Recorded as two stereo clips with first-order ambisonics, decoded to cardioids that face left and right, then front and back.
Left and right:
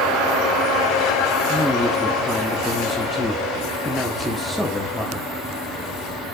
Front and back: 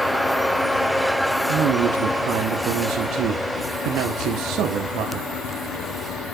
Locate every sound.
1.5 s a man speaking: 165° left, 1.4 m